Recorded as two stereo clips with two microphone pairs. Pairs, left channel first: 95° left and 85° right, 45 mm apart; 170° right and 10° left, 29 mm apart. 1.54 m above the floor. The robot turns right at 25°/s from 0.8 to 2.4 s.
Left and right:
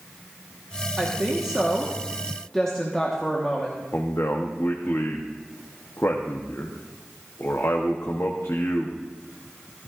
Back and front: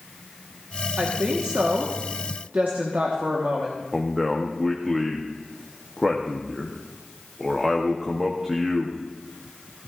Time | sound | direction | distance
1.0 | a woman speaking | 20° right | 1.3 m
3.9 | a man speaking | 90° left | 0.9 m